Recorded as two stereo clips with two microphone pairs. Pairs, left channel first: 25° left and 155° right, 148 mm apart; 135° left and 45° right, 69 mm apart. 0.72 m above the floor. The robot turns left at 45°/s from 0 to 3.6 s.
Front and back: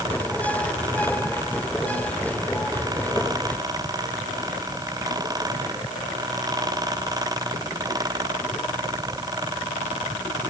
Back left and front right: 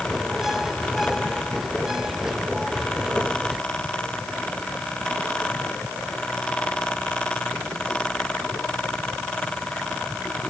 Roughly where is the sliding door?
No sliding door in this recording.